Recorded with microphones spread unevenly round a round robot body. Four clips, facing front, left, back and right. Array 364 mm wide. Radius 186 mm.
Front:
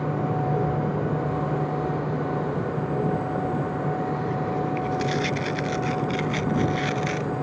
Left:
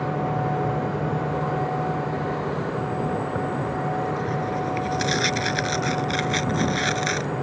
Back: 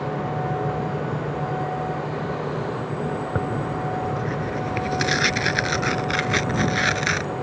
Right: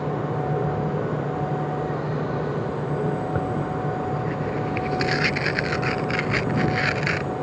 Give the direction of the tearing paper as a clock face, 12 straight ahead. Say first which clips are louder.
Even, even; 6 o'clock.